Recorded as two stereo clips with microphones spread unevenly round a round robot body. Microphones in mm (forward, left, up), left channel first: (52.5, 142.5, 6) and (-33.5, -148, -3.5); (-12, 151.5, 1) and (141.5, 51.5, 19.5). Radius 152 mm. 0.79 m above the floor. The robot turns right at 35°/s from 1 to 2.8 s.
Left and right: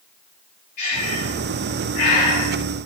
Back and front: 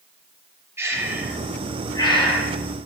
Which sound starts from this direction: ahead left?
Breathing, at 0.8 s.